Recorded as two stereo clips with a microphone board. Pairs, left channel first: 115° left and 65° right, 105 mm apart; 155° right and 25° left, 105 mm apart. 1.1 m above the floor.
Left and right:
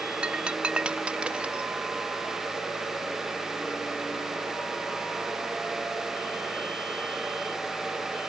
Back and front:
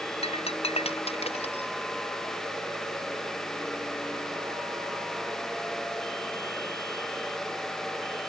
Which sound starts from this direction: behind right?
Breaking glass, at 0.2 s.